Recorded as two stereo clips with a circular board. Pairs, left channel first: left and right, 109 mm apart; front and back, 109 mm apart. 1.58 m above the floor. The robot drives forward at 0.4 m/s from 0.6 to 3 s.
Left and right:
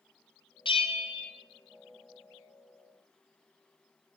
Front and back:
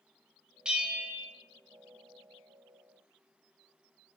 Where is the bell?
100° left, 0.6 m; by 1.3 s 125° left, 0.7 m.